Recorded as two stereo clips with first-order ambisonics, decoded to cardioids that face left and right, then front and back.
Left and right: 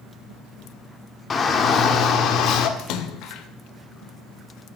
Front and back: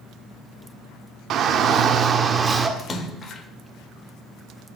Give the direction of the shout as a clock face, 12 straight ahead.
7 o'clock.